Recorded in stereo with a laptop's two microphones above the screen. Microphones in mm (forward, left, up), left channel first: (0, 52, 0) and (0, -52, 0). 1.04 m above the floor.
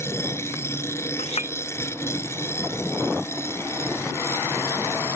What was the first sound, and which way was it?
A machine running, 25° left (ahead or behind).